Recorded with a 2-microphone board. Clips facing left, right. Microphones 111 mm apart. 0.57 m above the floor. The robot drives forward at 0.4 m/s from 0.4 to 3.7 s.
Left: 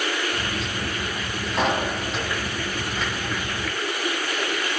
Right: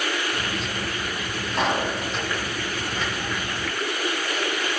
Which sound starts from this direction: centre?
A pop, at 1.5 s.